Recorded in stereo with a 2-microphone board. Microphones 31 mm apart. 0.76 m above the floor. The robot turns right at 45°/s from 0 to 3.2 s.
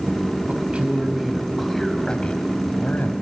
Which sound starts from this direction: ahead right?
A man speaking, at 0.5 s.